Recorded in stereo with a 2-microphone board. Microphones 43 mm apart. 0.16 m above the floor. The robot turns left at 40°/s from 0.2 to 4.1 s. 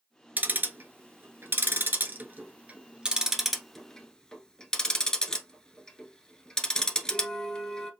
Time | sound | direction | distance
0.4 | ticking | 45° right (ahead or behind) | 0.9 m